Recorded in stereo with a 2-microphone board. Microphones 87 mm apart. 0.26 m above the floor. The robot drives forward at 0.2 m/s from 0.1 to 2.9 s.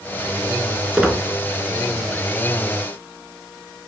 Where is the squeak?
5° right (ahead or behind), 0.7 m.